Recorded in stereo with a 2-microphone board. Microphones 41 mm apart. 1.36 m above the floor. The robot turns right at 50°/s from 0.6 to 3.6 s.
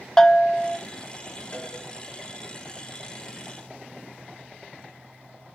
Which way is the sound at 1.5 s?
45° left (ahead or behind).